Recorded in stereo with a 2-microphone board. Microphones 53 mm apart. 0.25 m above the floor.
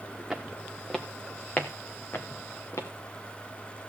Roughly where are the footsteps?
Centre.